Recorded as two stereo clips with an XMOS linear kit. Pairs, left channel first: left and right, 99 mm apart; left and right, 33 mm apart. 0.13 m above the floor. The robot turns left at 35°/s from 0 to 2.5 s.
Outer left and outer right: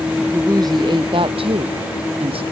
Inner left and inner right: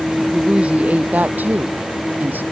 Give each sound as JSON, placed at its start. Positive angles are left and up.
{"t": 0.3, "sound": "a woman speaking", "azimuth_deg": -35}